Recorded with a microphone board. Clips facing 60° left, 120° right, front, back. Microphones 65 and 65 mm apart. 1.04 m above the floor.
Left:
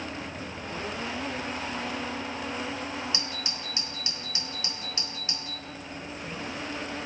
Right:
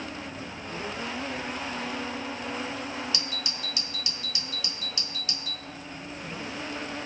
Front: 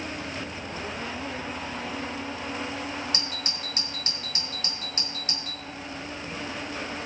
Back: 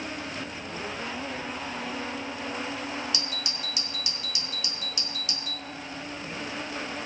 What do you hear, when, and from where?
3.1 s a doorbell: 15° left, 1.5 m